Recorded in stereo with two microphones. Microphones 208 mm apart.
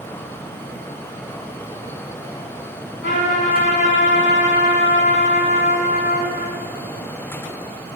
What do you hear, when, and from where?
3.0 s a trumpet: 65° left (ahead or behind), 3.5 m